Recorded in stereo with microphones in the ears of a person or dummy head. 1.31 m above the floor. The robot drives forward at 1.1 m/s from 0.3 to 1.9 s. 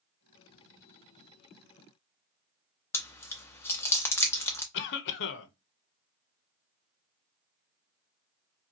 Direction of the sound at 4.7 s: 60° left (ahead or behind).